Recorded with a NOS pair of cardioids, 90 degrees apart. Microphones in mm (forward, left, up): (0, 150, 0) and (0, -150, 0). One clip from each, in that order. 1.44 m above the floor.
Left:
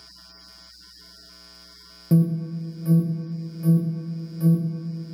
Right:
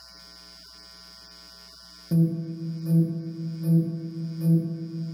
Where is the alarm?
40° left, 0.6 m.